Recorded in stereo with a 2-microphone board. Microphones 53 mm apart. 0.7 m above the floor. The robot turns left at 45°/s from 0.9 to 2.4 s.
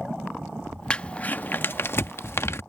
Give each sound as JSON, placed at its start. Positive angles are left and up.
{"t": 0.9, "sound": "crumpling", "side_deg": 20}